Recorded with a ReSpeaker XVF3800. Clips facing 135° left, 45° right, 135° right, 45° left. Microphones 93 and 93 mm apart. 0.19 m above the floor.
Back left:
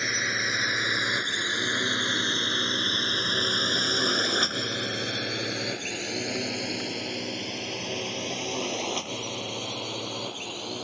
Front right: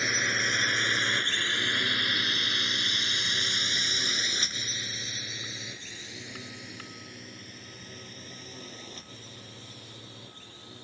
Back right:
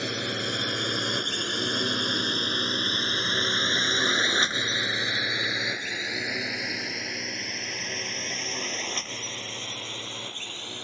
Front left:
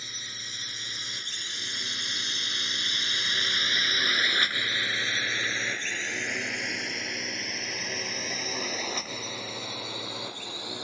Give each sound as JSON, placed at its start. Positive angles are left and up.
{"t": 0.0, "sound": "a drone", "azimuth_deg": -135}